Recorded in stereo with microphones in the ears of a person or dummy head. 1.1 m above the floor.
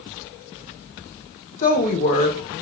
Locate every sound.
1.6 s a woman speaking: 40° left (ahead or behind), 0.5 m